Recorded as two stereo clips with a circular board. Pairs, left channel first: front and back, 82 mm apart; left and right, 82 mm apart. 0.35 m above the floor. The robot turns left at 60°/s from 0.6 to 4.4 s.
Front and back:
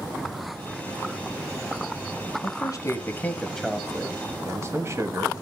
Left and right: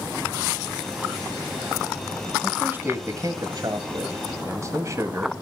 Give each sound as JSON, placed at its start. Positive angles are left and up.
{"t": 2.4, "sound": "a man speaking", "azimuth_deg": -15, "distance_m": 1.8}